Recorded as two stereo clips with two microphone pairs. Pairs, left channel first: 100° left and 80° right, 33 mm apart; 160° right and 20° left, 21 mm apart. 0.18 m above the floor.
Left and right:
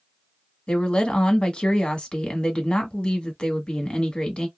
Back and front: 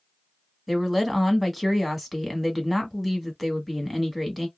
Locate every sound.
0.7 s a woman speaking: 95° left, 1.1 m